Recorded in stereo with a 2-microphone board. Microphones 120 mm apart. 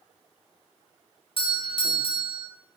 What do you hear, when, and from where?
1.4 s a doorbell: 50° left (ahead or behind), 0.5 m